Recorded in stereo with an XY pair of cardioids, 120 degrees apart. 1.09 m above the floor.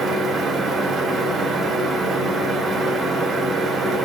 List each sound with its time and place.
0.0 s a fan: 45° right, 0.9 m